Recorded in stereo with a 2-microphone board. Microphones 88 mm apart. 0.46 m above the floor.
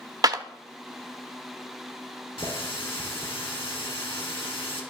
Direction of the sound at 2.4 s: 80° left.